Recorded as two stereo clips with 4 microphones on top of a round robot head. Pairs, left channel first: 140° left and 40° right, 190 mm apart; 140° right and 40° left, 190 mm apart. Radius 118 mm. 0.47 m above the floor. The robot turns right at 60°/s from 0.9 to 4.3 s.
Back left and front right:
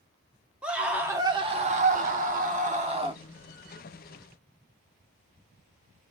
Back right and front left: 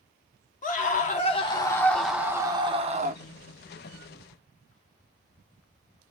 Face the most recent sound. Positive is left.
turn(degrees=85)